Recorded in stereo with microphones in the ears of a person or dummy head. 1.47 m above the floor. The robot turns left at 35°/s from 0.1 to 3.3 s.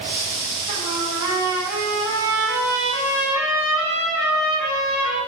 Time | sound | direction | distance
0.7 | a trumpet | 140° right | 2 m